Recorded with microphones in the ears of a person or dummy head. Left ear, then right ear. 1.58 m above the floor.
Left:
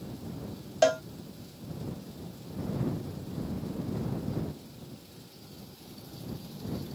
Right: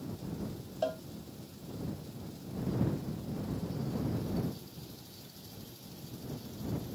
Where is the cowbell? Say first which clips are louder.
Left 11 dB; 60° left (ahead or behind).